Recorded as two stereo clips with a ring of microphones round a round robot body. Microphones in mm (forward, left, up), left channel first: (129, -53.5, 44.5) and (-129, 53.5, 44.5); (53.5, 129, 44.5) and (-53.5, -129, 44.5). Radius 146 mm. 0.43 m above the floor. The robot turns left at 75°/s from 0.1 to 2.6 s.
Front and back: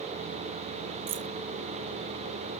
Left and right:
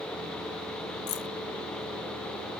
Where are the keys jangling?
115° left; by 1.3 s 95° left.